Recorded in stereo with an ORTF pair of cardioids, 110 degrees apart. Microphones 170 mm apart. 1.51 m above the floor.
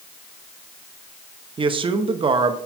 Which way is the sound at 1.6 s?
30° right.